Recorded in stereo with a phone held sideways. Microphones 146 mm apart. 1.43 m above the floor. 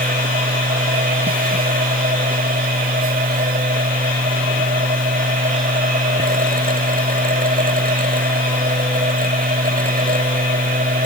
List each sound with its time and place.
0.0 s a machine running: 80° right